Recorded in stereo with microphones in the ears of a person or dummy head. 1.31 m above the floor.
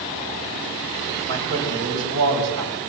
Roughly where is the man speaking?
Right.